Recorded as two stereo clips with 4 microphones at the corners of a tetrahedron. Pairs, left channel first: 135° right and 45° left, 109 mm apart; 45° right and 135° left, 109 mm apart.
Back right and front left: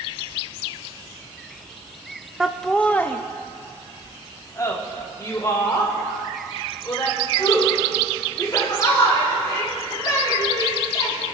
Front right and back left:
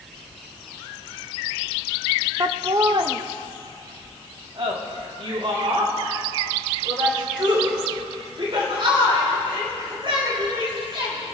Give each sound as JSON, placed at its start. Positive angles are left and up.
{"t": 2.4, "sound": "laughter", "azimuth_deg": 125, "distance_m": 0.5}